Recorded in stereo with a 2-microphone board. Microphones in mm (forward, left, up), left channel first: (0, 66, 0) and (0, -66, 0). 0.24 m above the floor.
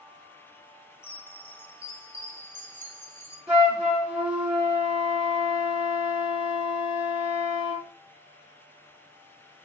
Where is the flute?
10° right (ahead or behind), 1.1 m.